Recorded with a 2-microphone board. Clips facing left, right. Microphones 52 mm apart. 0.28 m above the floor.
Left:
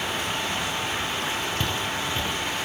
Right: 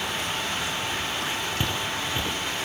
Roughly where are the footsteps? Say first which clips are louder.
Left 1 dB; centre.